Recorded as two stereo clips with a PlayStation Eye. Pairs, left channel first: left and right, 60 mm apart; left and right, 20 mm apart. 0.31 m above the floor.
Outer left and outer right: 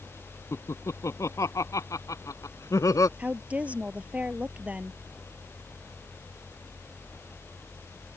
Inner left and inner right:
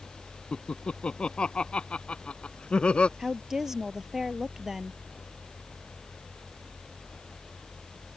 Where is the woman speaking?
20° right (ahead or behind).